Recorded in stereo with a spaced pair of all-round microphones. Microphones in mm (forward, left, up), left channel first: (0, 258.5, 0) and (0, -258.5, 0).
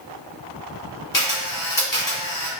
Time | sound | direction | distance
1.1 | a camera shutter | 40° left (ahead or behind) | 1.0 m